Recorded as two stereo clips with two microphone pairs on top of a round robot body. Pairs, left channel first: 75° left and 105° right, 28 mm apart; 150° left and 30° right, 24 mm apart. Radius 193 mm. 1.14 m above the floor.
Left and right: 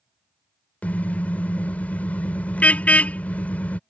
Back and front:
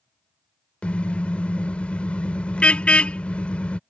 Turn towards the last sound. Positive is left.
turn(degrees=110)